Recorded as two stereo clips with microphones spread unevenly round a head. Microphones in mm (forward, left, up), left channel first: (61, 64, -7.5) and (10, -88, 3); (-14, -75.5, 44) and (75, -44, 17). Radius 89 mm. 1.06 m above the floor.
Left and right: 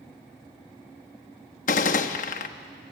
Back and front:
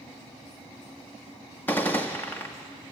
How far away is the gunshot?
About 0.8 m.